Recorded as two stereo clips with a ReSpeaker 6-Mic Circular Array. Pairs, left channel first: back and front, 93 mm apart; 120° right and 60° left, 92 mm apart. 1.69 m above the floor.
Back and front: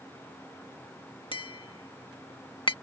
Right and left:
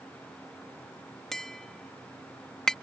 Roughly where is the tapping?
Behind left.